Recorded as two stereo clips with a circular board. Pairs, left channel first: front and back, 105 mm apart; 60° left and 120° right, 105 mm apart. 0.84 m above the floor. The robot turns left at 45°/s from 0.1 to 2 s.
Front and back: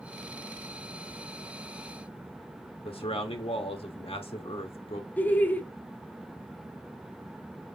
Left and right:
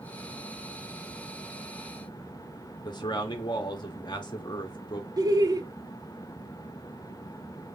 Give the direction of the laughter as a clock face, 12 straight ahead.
2 o'clock.